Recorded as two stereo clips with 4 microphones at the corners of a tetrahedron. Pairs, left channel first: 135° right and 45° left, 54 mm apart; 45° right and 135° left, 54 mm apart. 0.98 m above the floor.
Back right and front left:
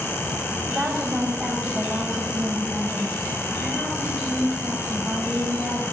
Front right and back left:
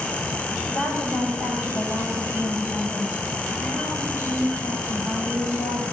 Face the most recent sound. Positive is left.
turn(degrees=-60)